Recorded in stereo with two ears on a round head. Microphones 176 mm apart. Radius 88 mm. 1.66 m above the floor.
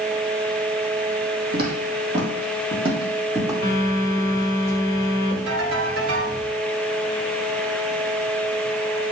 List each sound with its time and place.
1.5 s footsteps: 50° right (ahead or behind), 3 m; by 3.5 s 20° right (ahead or behind), 4 m
3.6 s a phone buzzing: 20° left (ahead or behind), 1.9 m
5.5 s a ringtone: 80° right, 4 m